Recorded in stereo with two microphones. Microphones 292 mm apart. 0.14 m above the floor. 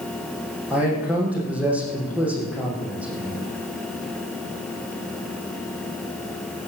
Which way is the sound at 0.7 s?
5° right (ahead or behind).